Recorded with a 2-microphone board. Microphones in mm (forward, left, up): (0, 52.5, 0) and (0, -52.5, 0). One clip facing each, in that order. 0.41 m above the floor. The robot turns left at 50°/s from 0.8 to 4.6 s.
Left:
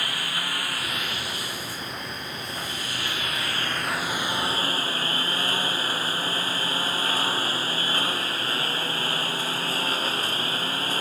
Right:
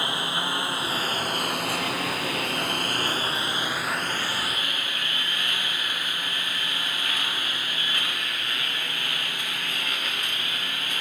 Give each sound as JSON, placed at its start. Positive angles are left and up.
{"t": 0.0, "sound": "a lawn mower", "azimuth_deg": -25}